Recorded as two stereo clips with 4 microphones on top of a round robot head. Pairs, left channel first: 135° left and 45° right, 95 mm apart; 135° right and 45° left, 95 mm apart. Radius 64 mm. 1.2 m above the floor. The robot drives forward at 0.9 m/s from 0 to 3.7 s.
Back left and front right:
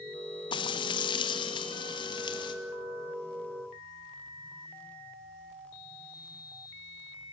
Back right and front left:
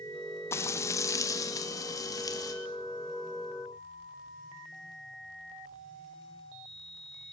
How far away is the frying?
About 1.6 m.